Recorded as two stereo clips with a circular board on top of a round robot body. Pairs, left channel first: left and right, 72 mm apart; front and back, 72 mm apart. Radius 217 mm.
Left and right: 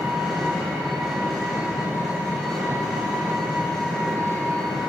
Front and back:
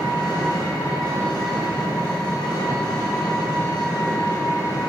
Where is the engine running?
Straight ahead, 3.5 m.